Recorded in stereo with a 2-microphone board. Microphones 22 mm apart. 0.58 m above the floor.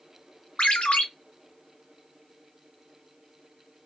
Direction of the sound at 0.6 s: 70° left (ahead or behind).